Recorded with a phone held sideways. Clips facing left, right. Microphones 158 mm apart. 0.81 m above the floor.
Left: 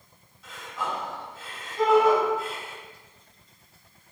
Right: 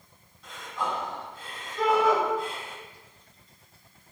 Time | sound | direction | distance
0.4 | breathing | 5° left (ahead or behind) | 2.5 m
1.8 | a shout | 70° left (ahead or behind) | 4.5 m